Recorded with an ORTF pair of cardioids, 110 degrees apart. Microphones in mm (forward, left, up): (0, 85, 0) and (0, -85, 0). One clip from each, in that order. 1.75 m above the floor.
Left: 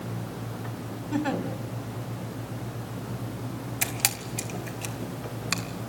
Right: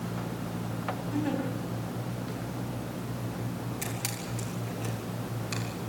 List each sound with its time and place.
1.1 s a giggle: 50° left, 4.5 m
3.8 s a camera shutter: 60° left, 2.5 m